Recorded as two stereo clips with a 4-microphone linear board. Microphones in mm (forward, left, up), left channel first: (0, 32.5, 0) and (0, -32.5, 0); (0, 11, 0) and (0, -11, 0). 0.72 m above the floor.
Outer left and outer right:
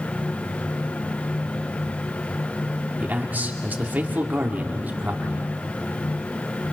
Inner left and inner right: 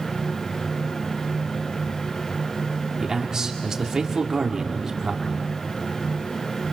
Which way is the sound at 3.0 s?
30° right (ahead or behind).